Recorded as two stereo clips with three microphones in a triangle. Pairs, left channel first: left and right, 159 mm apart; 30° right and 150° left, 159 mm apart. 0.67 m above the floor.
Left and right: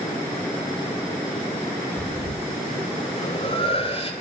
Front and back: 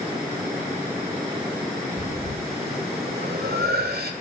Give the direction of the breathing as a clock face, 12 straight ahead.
7 o'clock.